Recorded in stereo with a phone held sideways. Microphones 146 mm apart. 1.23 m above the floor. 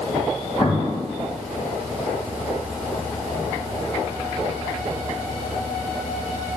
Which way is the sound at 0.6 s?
35° left (ahead or behind).